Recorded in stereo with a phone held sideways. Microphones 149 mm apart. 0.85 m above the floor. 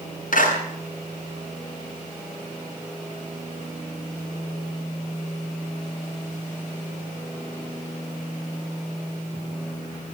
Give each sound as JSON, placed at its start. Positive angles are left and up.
{"t": 0.3, "sound": "a clap", "side_deg": 70, "distance_m": 8.0}